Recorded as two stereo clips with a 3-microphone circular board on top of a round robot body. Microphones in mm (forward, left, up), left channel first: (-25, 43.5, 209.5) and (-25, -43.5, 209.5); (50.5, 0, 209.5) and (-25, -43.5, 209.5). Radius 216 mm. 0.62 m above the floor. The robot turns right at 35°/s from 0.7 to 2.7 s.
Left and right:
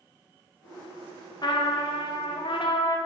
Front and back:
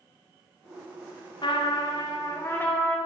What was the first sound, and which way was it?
A trumpet, 55° left.